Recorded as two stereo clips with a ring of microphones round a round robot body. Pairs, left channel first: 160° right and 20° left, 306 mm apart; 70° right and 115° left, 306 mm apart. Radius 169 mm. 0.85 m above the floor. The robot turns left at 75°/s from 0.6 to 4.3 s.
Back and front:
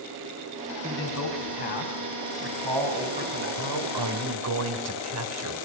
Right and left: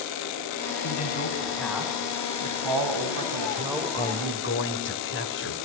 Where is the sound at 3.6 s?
40° left, 4 m; by 5.5 s 15° right, 4 m.